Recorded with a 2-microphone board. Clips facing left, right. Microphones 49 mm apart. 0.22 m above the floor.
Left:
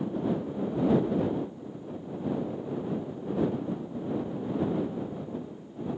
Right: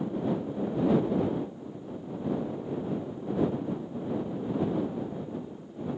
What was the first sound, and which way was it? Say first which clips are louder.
Ticking: even; 60° right (ahead or behind).